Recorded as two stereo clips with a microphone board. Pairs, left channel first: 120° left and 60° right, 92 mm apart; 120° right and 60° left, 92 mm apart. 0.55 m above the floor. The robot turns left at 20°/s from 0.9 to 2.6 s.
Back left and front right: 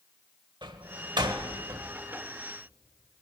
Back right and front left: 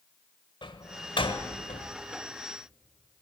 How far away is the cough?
No cough in this recording.